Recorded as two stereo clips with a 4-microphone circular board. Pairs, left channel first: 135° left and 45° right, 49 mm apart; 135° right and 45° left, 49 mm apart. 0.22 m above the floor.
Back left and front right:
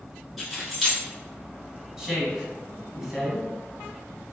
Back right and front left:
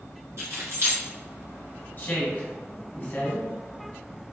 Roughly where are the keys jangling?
Ahead left.